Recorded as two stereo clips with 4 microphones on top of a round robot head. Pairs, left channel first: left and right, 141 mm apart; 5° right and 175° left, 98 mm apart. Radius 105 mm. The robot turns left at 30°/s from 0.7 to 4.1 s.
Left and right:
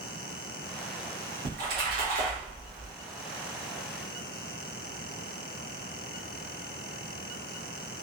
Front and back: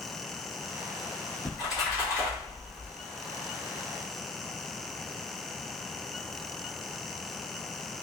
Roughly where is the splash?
Right.